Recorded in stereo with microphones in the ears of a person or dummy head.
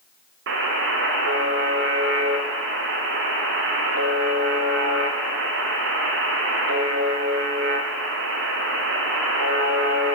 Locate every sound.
0.5 s a buzzer: 55° right (ahead or behind), 0.5 m